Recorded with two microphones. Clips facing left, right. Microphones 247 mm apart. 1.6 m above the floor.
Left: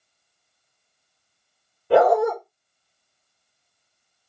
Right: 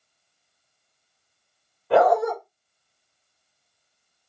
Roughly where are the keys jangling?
No keys jangling in this recording.